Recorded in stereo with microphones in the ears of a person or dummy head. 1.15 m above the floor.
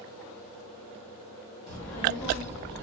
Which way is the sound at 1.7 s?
10° left (ahead or behind).